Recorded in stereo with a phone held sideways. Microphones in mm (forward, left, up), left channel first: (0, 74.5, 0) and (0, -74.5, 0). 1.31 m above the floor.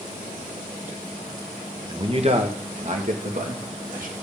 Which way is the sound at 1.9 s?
35° right (ahead or behind).